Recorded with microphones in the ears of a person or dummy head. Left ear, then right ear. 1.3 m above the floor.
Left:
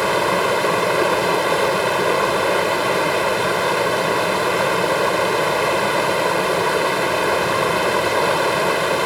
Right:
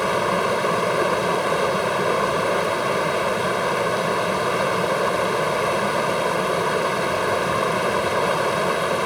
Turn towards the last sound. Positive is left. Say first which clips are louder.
# left 3 dB
turn(degrees=15)  # may be behind; listen again after turning